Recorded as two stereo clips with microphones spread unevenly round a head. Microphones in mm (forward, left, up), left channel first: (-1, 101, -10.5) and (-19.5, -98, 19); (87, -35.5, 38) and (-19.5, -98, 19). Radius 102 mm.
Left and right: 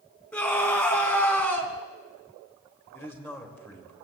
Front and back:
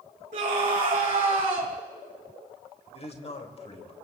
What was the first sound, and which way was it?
A scream, 165° left.